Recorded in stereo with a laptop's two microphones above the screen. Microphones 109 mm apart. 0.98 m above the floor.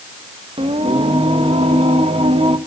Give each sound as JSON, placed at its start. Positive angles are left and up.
{"t": 0.6, "sound": "singing", "side_deg": -60, "distance_m": 1.2}